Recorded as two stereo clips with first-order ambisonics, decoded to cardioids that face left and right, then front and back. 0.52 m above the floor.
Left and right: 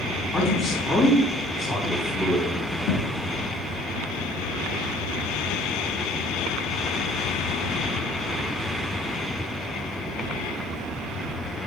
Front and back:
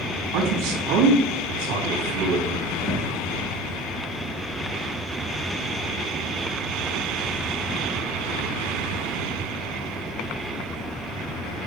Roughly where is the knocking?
Left.